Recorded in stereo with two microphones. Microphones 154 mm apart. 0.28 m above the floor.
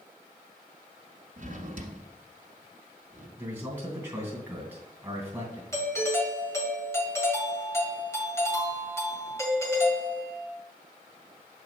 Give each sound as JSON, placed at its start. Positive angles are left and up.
{"t": 1.4, "sound": "a drawer", "side_deg": -55, "distance_m": 1.2}
{"t": 3.4, "sound": "a man speaking", "side_deg": -15, "distance_m": 2.5}
{"t": 5.7, "sound": "a doorbell", "side_deg": 20, "distance_m": 1.5}